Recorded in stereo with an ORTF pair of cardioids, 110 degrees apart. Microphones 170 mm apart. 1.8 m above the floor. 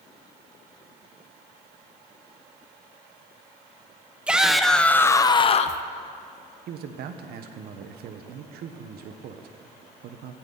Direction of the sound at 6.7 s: 70° right.